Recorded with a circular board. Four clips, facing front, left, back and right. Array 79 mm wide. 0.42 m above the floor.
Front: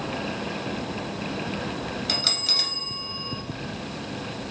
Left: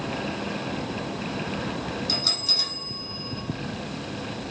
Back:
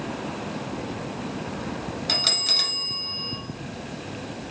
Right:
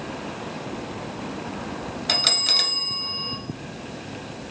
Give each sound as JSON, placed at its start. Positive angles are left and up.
{"t": 2.1, "sound": "a bell", "azimuth_deg": -95, "distance_m": 0.6}